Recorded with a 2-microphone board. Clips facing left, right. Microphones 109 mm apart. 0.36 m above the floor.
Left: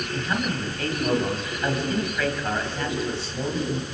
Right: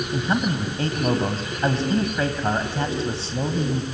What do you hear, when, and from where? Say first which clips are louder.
0.1 s a man speaking: right 4 dB; 30° right (ahead or behind), 2.5 m